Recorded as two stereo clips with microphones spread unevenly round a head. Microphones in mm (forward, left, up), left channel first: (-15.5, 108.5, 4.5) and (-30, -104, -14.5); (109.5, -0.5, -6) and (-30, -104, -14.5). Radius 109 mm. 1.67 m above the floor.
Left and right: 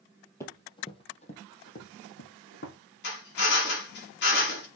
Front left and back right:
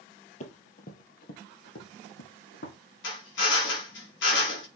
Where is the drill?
45° left, 4 m.